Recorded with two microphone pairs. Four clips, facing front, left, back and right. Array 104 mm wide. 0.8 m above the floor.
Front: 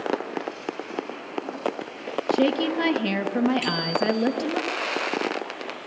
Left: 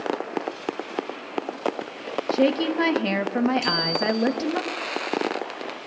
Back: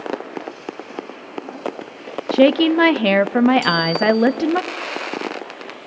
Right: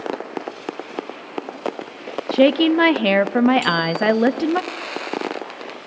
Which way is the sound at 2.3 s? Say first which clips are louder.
Right 7 dB, back 9 dB; 145° right.